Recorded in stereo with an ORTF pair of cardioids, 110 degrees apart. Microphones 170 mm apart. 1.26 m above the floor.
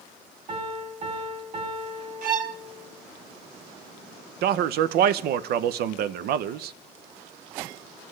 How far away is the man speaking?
About 0.6 m.